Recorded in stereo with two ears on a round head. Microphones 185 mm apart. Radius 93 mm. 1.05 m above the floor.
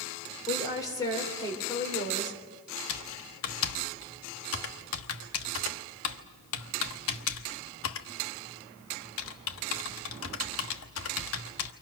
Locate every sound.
0.5 s a woman speaking: 20° left (ahead or behind), 4 m
2.9 s typing on a keyboard: 75° left (ahead or behind), 1.1 m